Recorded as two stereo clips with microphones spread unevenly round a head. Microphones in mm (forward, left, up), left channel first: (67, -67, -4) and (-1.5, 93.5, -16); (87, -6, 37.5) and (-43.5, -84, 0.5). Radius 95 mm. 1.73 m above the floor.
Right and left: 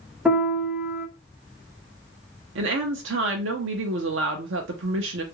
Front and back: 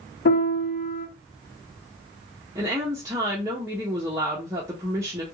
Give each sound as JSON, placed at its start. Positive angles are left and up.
{"t": 0.2, "sound": "a piano", "azimuth_deg": 30, "distance_m": 1.3}
{"t": 2.5, "sound": "a woman speaking", "azimuth_deg": 130, "distance_m": 0.5}